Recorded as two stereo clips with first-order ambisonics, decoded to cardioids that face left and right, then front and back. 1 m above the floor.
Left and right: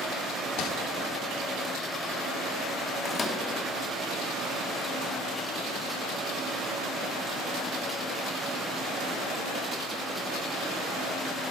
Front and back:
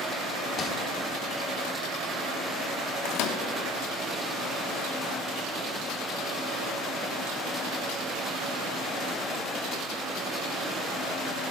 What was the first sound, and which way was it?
Crumpling, 60° left.